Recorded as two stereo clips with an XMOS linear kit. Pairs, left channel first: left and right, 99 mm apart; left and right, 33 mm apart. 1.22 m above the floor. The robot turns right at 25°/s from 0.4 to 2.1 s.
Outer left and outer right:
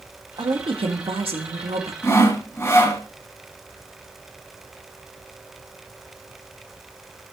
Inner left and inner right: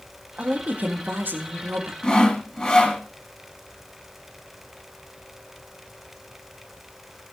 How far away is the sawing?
About 2 m.